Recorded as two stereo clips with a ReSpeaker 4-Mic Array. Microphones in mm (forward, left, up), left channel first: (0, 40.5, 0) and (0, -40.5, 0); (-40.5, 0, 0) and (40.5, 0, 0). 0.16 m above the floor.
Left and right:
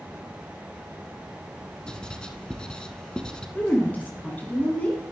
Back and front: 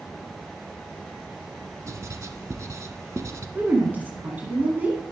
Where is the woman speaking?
45° left, 1.5 m.